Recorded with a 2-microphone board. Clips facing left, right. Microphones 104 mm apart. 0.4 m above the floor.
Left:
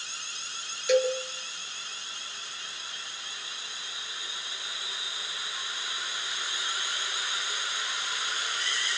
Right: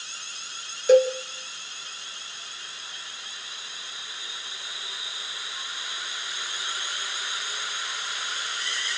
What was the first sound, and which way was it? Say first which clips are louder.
A cowbell: right 7 dB; 40° right (ahead or behind).